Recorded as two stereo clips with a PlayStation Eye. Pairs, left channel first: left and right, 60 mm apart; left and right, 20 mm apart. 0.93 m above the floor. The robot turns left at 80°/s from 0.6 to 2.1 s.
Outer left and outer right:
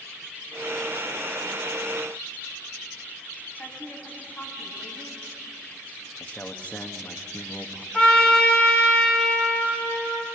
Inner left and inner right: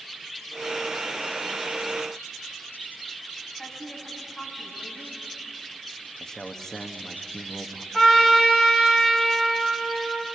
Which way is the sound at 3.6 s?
20° left (ahead or behind).